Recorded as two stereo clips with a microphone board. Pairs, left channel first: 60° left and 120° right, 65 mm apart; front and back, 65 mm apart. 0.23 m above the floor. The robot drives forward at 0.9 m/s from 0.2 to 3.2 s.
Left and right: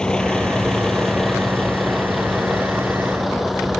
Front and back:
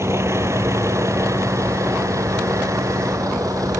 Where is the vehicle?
135° left; by 3.8 s 150° left.